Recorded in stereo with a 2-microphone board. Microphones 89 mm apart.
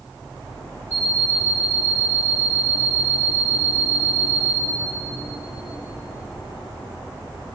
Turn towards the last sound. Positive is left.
turn(degrees=25)  # may be behind; listen again after turning